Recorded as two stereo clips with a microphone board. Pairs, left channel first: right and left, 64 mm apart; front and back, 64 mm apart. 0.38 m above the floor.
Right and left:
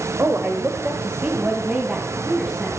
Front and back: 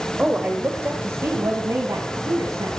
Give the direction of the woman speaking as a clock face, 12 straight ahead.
8 o'clock.